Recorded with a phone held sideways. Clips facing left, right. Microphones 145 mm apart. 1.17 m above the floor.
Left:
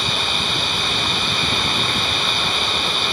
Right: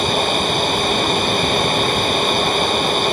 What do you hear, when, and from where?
0.0 s a machine running: 50° right (ahead or behind)